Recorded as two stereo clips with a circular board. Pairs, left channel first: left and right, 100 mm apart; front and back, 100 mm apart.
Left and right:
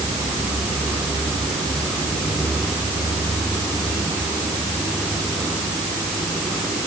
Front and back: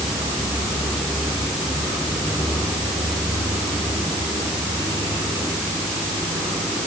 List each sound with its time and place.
Only background noise.